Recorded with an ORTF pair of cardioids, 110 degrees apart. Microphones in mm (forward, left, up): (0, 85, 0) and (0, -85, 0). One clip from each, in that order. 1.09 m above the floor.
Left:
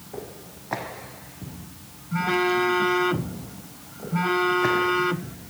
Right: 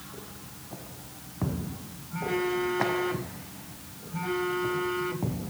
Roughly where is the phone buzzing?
Ahead left.